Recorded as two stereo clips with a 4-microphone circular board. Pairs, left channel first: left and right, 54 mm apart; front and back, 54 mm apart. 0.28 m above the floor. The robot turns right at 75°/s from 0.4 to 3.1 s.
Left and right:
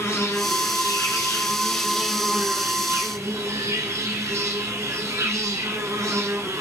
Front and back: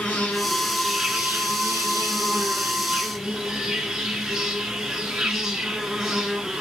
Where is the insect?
60° left, 1.4 m; by 6.6 s 95° right, 1.4 m.